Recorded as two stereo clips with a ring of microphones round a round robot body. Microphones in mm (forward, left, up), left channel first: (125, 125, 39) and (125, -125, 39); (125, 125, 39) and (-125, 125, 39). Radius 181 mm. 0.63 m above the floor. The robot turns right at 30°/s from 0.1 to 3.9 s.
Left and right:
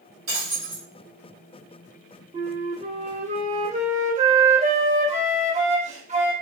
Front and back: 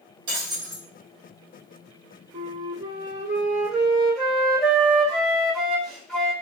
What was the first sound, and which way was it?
Breaking glass, 145° right.